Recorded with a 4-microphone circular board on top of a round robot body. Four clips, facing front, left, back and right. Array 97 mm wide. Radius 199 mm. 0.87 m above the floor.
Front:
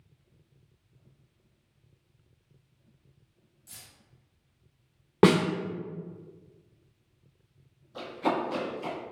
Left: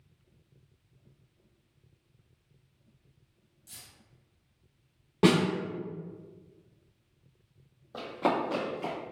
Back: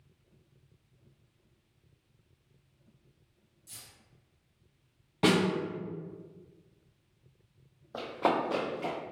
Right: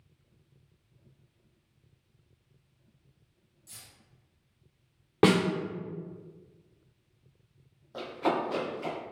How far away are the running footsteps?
About 1.9 m.